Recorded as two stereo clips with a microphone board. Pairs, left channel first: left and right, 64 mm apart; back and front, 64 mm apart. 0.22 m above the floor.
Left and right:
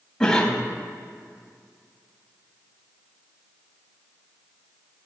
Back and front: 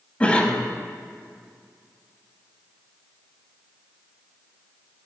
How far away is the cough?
About 1.1 m.